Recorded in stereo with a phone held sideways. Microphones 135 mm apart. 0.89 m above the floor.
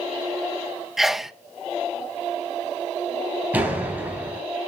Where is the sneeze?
Centre (ahead or behind), 0.7 m.